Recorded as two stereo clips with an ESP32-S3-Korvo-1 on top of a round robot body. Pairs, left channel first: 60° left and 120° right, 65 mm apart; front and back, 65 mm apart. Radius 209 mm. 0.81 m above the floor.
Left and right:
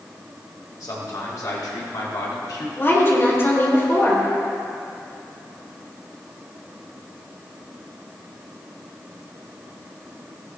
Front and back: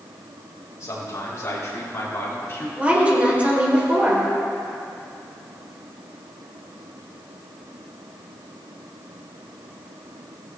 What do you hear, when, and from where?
0.8 s a man speaking: 35° left, 4 m; by 2.7 s 50° left, 3 m
2.8 s a woman speaking: 110° left, 3.5 m